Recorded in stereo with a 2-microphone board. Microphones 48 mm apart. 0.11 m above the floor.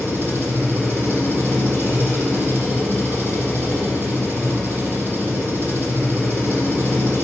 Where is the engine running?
45° right (ahead or behind), 4 m.